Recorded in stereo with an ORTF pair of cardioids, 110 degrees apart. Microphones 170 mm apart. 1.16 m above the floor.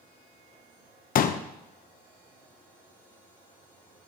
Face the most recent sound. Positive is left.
turn(degrees=50)